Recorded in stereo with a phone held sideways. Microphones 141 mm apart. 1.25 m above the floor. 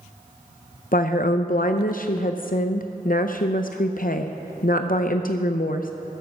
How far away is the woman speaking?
About 0.6 m.